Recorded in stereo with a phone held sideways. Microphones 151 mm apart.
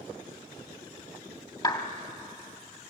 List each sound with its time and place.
1.6 s a clap: 30° left (ahead or behind), 2 m